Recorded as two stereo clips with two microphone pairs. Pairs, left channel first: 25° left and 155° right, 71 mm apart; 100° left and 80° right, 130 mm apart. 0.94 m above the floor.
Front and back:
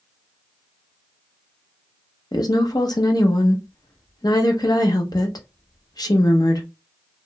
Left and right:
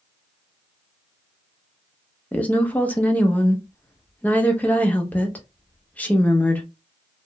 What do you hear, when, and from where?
2.3 s a woman speaking: 20° left, 0.7 m